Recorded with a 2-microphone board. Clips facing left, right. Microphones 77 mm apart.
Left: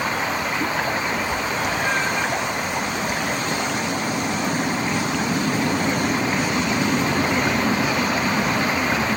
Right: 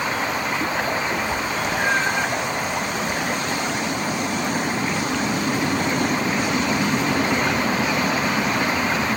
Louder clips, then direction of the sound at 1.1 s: Even; 30° right (ahead or behind).